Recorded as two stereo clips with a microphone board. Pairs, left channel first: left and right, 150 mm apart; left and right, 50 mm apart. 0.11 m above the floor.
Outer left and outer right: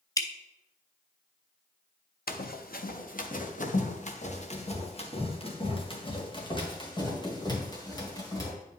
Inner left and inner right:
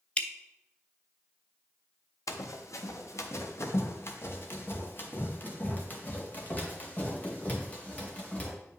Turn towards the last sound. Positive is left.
turn(degrees=25)  # may be behind; listen again after turning